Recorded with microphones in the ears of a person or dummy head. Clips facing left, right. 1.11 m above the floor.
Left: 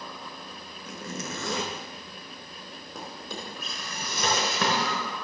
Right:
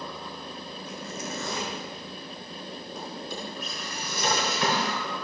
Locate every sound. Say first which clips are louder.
0.8 s a zipper: left 1 dB; 65° left (ahead or behind), 1.8 m
3.0 s a drawer: right 1 dB; 60° left (ahead or behind), 3.5 m